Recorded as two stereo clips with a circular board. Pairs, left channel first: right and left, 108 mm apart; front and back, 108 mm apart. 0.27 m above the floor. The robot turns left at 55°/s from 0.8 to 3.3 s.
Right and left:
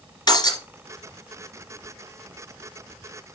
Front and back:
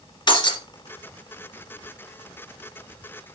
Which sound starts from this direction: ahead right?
Breaking glass, at 0.3 s.